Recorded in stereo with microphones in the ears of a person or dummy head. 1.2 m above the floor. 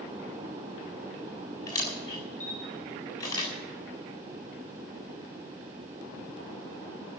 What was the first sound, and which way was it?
A camera shutter, 15° left (ahead or behind).